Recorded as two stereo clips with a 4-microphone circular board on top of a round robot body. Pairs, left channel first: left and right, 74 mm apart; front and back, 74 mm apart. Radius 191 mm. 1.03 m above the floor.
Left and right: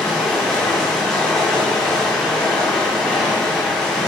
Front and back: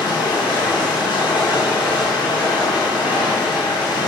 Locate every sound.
0.0 s running water: 5° left, 3 m